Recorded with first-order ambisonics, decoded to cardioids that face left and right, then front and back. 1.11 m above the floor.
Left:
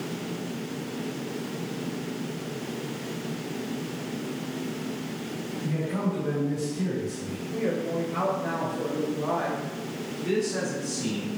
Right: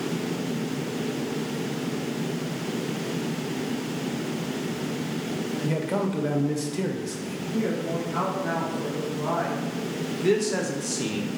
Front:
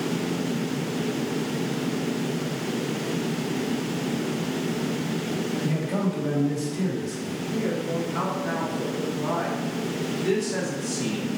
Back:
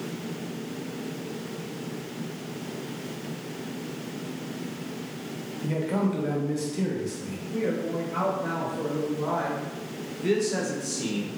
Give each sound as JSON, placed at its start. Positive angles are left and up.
{"t": 5.6, "sound": "a man speaking", "azimuth_deg": -100, "distance_m": 0.7}
{"t": 7.5, "sound": "a woman speaking", "azimuth_deg": -165, "distance_m": 1.5}
{"t": 10.2, "sound": "a man speaking", "azimuth_deg": -100, "distance_m": 0.7}